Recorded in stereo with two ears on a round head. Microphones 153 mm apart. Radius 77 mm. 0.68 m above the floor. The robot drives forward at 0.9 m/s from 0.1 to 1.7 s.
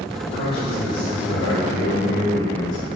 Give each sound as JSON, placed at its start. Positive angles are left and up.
{"t": 0.3, "sound": "a man speaking", "side_deg": 75, "distance_m": 2.5}